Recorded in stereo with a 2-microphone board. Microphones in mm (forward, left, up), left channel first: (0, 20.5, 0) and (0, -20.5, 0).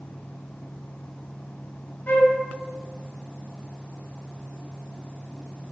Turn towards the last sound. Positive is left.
turn(degrees=65)  # may be behind; listen again after turning